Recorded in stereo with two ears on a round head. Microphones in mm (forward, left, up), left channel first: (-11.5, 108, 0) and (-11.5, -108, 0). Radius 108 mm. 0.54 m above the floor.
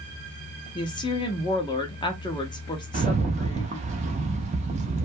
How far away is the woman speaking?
About 0.6 m.